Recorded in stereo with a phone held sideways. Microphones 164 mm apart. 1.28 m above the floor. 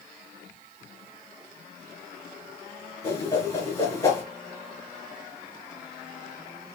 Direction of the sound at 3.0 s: 20° left (ahead or behind).